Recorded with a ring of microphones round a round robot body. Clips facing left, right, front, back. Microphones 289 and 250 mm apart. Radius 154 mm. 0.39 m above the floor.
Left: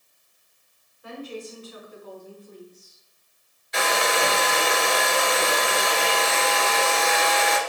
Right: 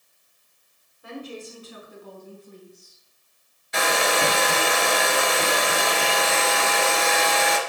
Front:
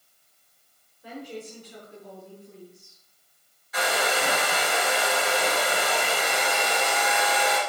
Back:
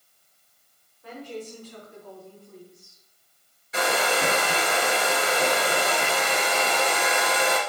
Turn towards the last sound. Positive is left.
turn(degrees=-110)